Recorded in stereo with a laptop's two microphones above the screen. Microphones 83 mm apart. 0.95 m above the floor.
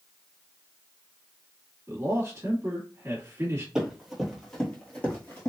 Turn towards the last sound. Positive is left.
turn(degrees=35)  # may be behind; listen again after turning